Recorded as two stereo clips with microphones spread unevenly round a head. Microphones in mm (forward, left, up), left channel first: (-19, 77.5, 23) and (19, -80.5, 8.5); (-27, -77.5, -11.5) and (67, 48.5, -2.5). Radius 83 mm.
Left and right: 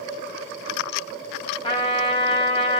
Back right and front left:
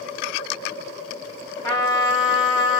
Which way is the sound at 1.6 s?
165° left.